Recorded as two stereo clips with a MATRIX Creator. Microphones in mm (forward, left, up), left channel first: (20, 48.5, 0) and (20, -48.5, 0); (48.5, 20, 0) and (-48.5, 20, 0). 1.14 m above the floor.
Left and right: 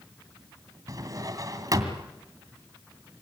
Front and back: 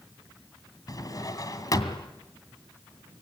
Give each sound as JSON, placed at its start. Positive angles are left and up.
{"t": 0.9, "sound": "a drawer", "azimuth_deg": -45, "distance_m": 2.5}